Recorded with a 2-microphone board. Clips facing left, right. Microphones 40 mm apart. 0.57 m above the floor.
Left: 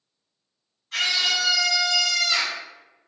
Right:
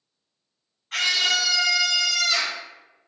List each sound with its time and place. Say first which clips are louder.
0.9 s a scream: right 1 dB; 50° right (ahead or behind), 1.8 m; by 2.6 s centre (ahead or behind), 1.2 m